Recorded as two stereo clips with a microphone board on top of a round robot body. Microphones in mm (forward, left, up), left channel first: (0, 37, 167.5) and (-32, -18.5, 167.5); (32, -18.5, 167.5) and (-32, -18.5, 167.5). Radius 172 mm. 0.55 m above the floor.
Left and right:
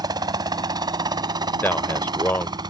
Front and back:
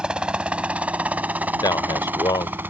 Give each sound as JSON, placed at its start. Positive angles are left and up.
{"t": 0.0, "sound": "a helicopter", "azimuth_deg": -105}
{"t": 1.6, "sound": "a man speaking", "azimuth_deg": 0}